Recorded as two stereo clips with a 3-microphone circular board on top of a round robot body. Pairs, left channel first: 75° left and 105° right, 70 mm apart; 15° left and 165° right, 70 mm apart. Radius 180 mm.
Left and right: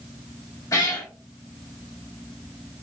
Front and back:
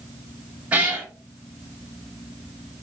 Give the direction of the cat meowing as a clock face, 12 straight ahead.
8 o'clock.